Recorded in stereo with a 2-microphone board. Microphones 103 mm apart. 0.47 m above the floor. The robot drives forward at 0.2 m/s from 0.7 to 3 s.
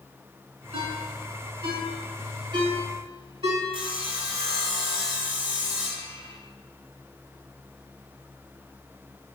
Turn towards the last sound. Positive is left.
turn(degrees=-65)  # may be behind; listen again after turning